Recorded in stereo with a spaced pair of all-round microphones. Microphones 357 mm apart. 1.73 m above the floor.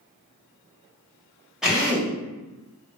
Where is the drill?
Centre (ahead or behind), 0.9 m.